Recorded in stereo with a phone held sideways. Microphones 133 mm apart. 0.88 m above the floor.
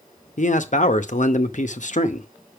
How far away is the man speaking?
About 0.7 m.